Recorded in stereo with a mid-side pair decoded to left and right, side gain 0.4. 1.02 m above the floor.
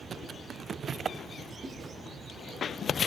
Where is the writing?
45° right, 9 m.